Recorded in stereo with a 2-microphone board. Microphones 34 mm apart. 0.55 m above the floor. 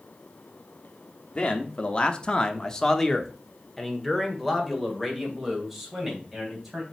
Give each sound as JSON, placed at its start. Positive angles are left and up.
{"t": 1.4, "sound": "a man speaking", "side_deg": 30, "distance_m": 1.0}